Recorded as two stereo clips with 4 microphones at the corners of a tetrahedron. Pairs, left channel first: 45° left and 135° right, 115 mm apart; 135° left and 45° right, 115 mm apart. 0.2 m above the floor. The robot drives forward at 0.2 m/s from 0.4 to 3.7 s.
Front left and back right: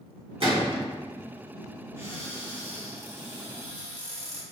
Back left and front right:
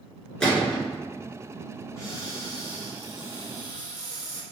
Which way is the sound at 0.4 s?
145° right.